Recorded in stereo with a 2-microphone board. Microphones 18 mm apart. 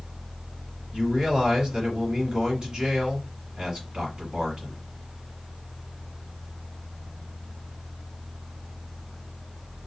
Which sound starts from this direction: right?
A man speaking, at 0.9 s.